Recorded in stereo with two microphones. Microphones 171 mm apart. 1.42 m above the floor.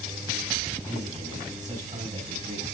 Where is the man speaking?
45° right (ahead or behind), 4 m.